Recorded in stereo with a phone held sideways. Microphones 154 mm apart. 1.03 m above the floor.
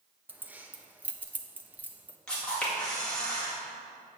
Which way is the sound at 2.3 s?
5° left (ahead or behind).